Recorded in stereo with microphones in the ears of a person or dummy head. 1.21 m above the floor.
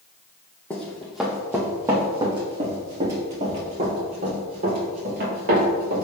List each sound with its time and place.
0.7 s running footsteps: 5° left (ahead or behind), 2.5 m; by 6.0 s 55° right (ahead or behind), 7 m